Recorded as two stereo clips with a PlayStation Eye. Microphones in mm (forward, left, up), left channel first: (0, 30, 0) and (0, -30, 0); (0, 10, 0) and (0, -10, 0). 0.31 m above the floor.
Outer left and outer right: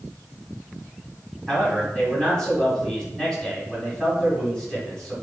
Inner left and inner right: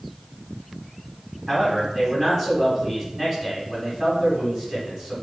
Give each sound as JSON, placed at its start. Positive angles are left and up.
{"t": 1.5, "sound": "a man speaking", "side_deg": 10, "distance_m": 1.5}